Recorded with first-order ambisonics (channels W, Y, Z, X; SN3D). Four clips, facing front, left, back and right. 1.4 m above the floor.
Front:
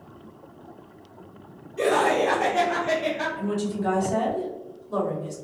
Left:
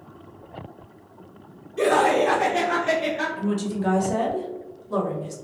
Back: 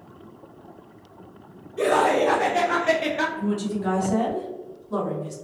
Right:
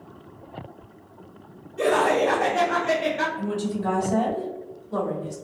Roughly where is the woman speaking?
Left.